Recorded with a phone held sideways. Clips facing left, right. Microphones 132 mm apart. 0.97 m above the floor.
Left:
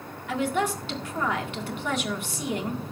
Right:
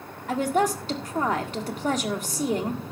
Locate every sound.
0.3 s a woman speaking: 40° right (ahead or behind), 1.7 m